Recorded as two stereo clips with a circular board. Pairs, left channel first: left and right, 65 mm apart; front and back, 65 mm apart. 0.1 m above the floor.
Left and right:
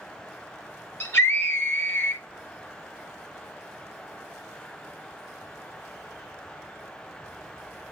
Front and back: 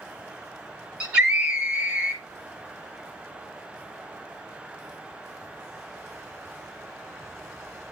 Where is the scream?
115° left, 2.5 m.